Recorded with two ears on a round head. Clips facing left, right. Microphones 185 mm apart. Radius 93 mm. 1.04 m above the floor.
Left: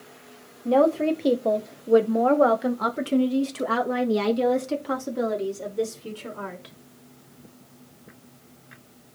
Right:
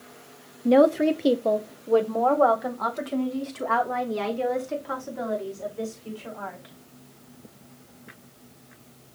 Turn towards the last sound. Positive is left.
turn(degrees=50)  # may be behind; listen again after turning